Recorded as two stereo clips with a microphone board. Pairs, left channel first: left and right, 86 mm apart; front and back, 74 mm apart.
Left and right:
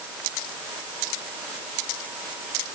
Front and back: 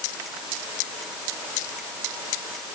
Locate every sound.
Only background noise.